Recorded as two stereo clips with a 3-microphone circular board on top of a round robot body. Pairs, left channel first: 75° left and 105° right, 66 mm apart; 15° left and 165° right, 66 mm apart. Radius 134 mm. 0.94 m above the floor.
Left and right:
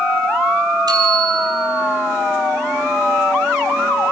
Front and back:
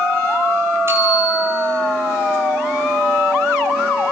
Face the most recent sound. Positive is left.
turn(degrees=-110)